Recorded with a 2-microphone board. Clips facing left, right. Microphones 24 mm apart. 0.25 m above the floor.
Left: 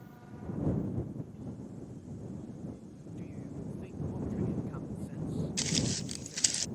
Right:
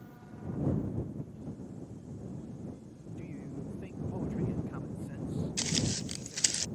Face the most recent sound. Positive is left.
turn(degrees=-20)  # may be behind; listen again after turning